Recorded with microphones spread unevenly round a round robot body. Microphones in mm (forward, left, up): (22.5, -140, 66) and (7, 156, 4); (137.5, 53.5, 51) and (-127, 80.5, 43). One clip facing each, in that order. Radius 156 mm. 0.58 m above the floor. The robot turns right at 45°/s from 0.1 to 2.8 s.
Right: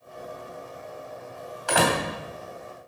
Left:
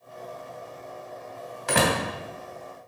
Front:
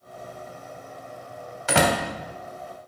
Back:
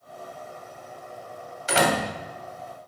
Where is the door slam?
30° left, 2.5 m; by 2.0 s 40° left, 2.5 m.